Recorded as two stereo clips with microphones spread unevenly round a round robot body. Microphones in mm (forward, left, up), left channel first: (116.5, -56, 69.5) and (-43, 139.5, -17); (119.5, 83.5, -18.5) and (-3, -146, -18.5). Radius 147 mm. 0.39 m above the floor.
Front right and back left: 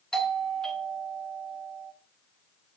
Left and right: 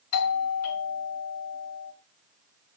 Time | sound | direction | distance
0.1 | a doorbell | 50° left | 2 m